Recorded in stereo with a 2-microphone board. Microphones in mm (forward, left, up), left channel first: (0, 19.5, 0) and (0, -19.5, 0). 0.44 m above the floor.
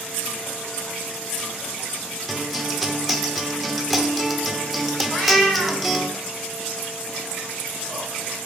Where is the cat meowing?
Centre (ahead or behind), 2 m.